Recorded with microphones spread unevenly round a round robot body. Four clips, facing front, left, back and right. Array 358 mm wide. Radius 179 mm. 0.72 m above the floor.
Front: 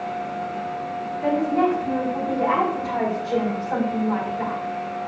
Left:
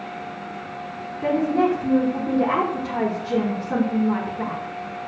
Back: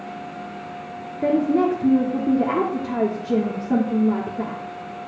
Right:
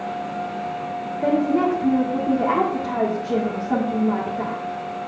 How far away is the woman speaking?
About 1.4 m.